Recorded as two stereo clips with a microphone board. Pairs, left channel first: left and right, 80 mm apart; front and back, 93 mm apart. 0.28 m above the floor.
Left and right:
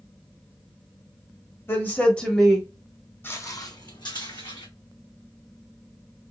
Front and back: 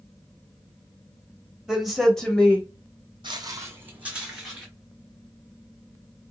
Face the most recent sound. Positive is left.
turn(degrees=90)